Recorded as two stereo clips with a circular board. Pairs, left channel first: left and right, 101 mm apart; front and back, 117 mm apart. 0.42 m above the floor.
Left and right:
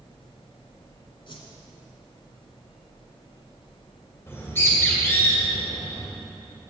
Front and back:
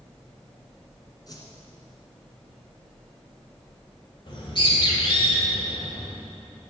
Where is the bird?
30° left, 2.5 m.